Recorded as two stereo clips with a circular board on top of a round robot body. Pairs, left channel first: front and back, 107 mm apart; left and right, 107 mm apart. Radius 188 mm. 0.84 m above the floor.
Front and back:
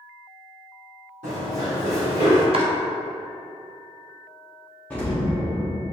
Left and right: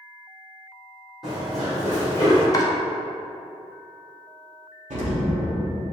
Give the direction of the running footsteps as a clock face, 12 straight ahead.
6 o'clock.